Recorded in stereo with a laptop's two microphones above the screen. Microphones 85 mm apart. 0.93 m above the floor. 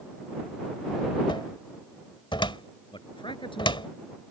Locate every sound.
1.3 s a cupboard door: 80° left
2.9 s a man speaking: 80° left